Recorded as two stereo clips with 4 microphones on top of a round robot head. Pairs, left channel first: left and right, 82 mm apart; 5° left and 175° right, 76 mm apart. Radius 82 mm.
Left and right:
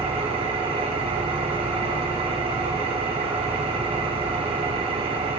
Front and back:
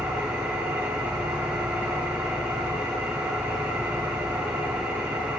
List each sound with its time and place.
0.0 s an engine running: 95° right, 2.5 m